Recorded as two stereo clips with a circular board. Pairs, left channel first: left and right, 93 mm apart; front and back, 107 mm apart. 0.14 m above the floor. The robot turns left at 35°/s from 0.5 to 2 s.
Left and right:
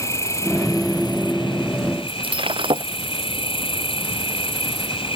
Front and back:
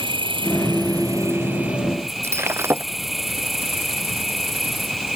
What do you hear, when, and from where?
0.0 s an insect: 145° left; by 5.2 s 90° left
2.2 s breaking glass: 115° right